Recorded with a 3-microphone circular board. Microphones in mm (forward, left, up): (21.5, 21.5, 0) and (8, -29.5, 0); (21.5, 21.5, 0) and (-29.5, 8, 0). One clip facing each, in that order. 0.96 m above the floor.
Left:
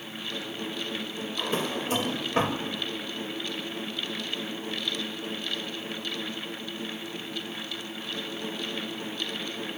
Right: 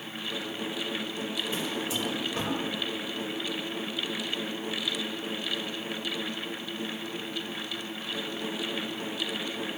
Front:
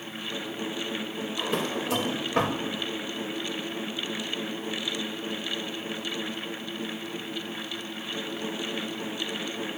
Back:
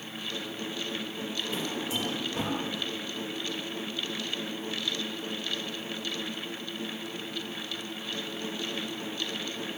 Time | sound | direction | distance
1.4 | a drawer | 35° left | 2.0 m